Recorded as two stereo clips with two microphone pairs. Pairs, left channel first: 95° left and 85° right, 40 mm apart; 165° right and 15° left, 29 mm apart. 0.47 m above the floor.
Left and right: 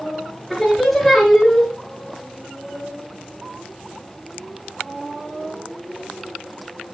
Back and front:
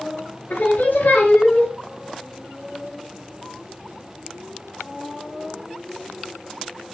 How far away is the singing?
About 4.5 m.